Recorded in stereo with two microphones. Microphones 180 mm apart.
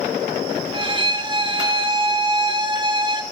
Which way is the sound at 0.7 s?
25° right (ahead or behind).